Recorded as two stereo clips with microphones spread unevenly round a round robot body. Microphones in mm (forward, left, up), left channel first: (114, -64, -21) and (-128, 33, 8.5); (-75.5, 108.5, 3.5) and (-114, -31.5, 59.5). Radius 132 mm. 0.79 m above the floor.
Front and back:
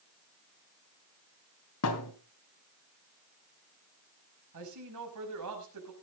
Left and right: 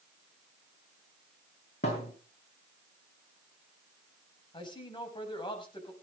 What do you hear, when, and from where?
1.8 s a thud: 15° left, 3 m
4.5 s a man speaking: 130° left, 6 m